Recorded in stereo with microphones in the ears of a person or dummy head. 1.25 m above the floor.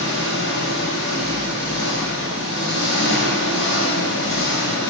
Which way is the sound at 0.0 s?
55° left (ahead or behind).